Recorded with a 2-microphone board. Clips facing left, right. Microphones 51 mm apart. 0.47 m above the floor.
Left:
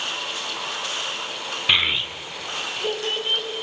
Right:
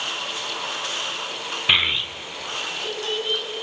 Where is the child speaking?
10° right (ahead or behind), 0.6 m; by 3.5 s 40° left (ahead or behind), 2.5 m.